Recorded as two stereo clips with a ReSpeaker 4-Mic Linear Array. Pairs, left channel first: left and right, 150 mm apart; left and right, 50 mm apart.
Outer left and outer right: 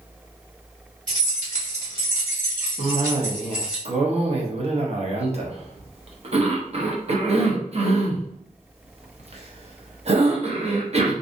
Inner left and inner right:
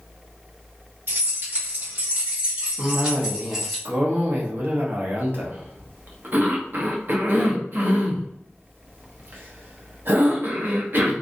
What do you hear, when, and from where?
1.1 s keys jangling: 55° right (ahead or behind), 1.7 m; by 3.8 s 5° right (ahead or behind), 1.2 m
2.8 s a cough: 45° right (ahead or behind), 0.8 m